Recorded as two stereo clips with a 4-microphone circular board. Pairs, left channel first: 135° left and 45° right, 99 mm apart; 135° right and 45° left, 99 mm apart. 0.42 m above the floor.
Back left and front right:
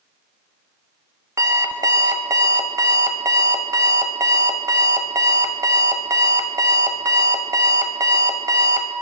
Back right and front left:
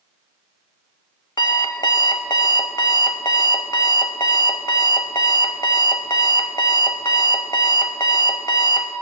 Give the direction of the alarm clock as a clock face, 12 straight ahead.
3 o'clock.